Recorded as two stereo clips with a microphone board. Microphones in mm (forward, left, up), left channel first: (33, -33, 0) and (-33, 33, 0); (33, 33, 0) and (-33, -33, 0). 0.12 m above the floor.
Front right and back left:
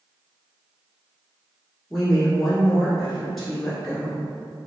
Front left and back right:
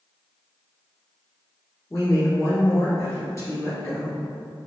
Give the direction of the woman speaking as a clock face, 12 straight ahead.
11 o'clock.